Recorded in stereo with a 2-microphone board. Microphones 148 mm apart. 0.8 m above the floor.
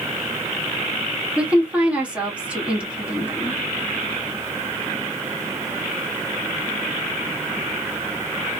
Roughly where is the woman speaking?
Centre.